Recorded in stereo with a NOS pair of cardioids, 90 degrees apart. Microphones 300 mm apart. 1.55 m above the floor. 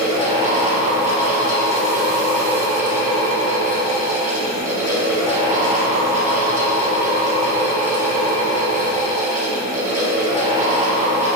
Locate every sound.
0.0 s a fan: 25° right, 2.0 m